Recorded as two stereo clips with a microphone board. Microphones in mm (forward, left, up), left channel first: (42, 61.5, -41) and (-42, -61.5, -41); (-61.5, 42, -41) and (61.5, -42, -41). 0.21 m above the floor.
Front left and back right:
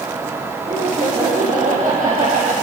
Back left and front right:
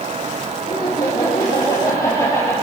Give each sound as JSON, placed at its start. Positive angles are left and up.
{"t": 0.7, "sound": "laughter", "azimuth_deg": -160, "distance_m": 4.5}